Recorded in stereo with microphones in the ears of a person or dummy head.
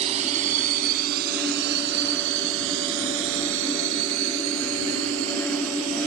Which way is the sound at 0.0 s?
30° right (ahead or behind).